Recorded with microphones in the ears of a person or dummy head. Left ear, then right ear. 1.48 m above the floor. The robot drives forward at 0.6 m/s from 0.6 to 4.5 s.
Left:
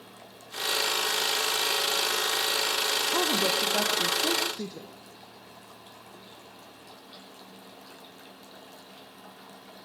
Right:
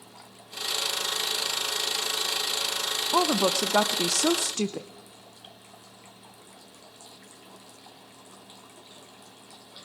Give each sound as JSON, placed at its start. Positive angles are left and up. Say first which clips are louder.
{"t": 3.1, "sound": "a woman speaking", "louder": "right 6 dB", "side_deg": -35, "distance_m": 0.8}